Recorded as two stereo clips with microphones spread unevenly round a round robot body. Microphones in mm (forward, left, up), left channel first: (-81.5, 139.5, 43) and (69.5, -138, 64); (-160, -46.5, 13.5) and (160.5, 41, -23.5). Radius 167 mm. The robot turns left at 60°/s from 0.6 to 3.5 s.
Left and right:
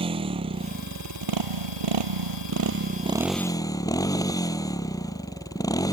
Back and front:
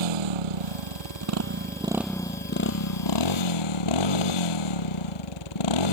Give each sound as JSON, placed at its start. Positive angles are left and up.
{"t": 0.0, "sound": "a motorcycle", "azimuth_deg": 10}